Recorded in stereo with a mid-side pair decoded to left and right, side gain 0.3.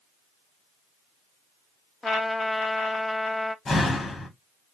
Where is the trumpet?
25° left, 0.7 m.